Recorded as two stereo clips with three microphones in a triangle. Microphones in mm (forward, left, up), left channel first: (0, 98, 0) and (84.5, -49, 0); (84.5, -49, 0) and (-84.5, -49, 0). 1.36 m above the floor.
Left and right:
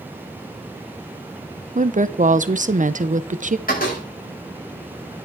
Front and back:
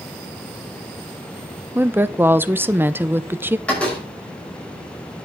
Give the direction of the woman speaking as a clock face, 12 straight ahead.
3 o'clock.